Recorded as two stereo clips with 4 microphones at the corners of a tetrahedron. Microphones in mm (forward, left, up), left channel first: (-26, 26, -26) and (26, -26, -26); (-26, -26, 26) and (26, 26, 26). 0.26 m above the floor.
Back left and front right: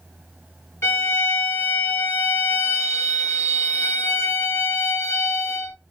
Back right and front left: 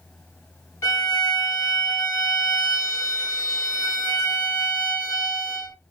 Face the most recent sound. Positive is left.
turn(degrees=-175)